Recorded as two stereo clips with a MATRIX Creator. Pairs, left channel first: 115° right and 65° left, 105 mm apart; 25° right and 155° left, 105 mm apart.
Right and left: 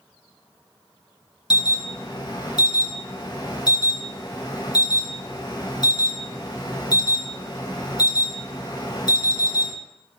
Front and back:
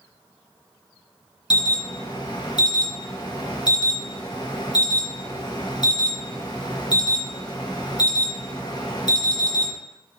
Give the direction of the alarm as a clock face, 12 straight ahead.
2 o'clock.